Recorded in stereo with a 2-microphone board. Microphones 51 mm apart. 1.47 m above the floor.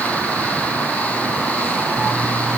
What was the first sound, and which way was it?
Only background noise.